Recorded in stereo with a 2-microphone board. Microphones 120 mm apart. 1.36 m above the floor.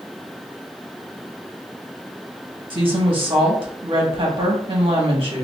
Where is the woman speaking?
45° right (ahead or behind), 1.2 m.